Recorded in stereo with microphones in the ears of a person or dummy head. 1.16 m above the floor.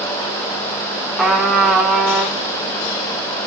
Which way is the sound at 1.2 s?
Centre (ahead or behind).